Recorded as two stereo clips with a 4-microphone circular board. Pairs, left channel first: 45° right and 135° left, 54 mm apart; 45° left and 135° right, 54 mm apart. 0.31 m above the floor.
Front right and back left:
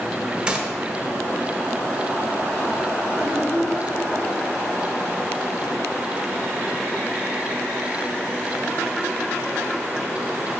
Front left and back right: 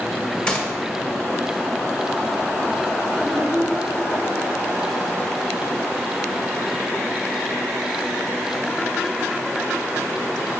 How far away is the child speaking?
About 1.7 m.